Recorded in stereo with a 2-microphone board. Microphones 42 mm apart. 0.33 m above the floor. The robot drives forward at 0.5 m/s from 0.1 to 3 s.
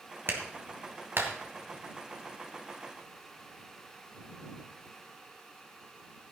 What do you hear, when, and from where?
0.3 s a clap: 60° right (ahead or behind), 2 m